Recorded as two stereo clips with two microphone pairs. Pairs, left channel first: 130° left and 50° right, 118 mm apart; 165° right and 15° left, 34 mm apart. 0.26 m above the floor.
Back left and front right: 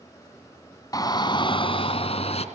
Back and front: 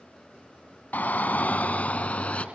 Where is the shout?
175° right, 2.5 m; by 2.5 s 150° left, 3.5 m.